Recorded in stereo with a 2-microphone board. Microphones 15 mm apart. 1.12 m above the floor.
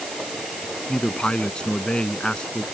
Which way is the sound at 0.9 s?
85° left.